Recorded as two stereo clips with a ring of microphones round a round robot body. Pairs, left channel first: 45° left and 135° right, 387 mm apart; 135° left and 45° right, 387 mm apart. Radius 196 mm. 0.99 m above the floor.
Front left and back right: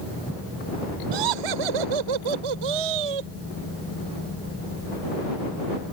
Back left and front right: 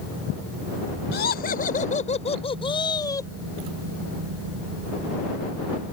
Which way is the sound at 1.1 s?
160° right.